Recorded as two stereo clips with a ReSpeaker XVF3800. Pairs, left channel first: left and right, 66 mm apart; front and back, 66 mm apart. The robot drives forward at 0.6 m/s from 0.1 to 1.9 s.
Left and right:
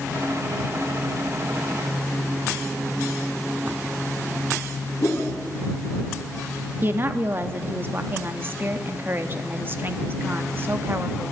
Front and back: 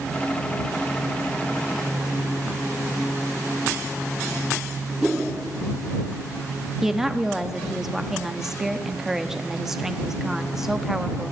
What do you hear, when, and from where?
5.0 s a whoosh: 90° left, 2.5 m
6.8 s a woman speaking: 100° right, 0.7 m